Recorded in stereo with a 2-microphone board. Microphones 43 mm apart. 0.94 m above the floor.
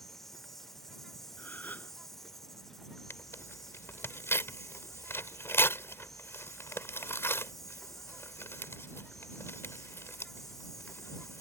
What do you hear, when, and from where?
0.0 s an insect: 5° left (ahead or behind)
1.4 s a gasp: 45° left (ahead or behind)
3.1 s tearing paper: 75° left (ahead or behind)